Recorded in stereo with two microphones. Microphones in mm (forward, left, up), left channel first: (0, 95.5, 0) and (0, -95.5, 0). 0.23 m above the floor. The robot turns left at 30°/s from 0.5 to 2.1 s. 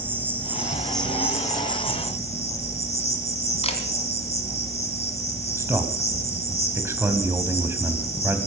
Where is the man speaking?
15° right (ahead or behind), 1.4 m.